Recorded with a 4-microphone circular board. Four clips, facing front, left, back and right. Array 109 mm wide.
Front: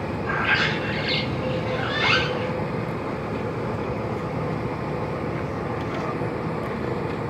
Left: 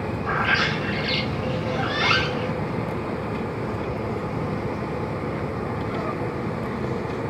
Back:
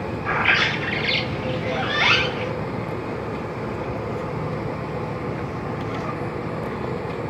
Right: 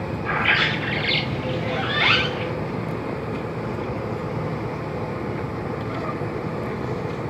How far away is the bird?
About 0.7 m.